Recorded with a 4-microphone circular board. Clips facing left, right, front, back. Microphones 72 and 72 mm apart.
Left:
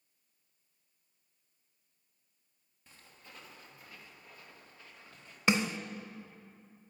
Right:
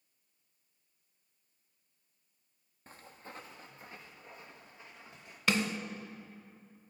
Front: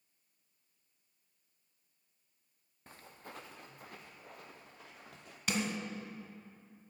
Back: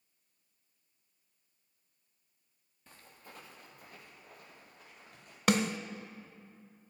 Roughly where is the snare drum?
Behind left.